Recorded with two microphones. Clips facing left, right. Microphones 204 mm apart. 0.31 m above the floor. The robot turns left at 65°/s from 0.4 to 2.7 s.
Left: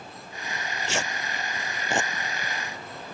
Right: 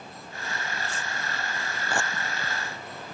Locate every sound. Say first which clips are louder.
0.5 s tearing paper: left 5 dB; 60° left (ahead or behind); by 2.1 s 15° left (ahead or behind)